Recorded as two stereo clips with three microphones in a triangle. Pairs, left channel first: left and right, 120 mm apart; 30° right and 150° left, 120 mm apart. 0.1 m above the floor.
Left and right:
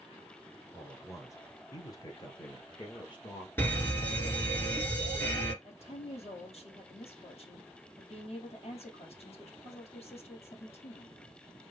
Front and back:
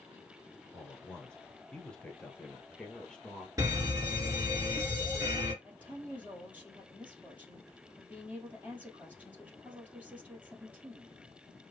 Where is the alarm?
140° left, 2 m.